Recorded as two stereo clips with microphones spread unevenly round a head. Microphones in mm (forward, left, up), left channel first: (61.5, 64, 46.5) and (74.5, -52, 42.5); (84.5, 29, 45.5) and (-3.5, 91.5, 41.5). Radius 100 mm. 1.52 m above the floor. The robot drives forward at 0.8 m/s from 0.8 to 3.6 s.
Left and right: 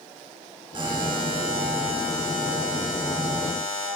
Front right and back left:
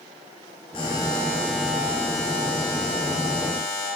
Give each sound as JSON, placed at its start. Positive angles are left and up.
{"t": 0.7, "sound": "a buzzer", "azimuth_deg": -60, "distance_m": 1.1}